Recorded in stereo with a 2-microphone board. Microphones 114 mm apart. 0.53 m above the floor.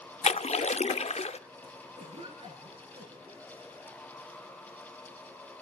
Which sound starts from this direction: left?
A splash, at 0.2 s.